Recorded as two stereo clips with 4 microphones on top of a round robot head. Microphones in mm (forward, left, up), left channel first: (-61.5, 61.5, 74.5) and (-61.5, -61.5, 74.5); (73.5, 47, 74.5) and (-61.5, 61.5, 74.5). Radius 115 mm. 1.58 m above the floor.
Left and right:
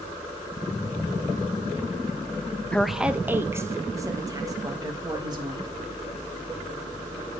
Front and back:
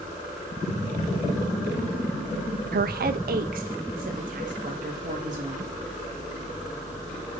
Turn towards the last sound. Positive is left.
turn(degrees=-145)